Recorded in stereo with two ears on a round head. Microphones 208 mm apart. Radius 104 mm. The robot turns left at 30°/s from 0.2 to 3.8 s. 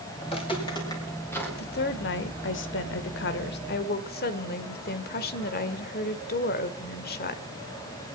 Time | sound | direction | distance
0.2 | footsteps | 25° left (ahead or behind) | 5.5 m
1.6 | a woman speaking | 120° left | 1.3 m